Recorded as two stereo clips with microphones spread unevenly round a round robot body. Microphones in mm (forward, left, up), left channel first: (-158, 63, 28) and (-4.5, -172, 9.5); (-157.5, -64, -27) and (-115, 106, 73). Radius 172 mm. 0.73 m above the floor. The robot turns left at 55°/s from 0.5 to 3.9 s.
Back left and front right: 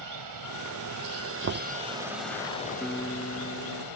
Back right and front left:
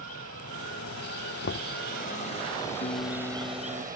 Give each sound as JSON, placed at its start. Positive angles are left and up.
{"t": 0.0, "sound": "running water", "azimuth_deg": -50}
{"t": 1.4, "sound": "knocking", "azimuth_deg": -100}
{"t": 2.8, "sound": "a guitar", "azimuth_deg": -145}